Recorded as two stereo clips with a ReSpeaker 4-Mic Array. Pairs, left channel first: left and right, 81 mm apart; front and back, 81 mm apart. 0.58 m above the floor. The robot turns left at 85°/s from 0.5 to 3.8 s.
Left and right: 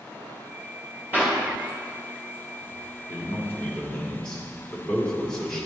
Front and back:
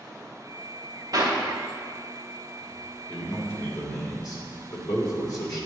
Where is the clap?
150° right, 1.9 m; by 1.4 s 170° right, 1.9 m.